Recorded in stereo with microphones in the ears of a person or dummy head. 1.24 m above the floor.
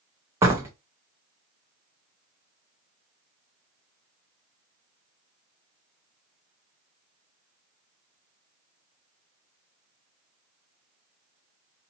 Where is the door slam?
15° right (ahead or behind), 0.6 m.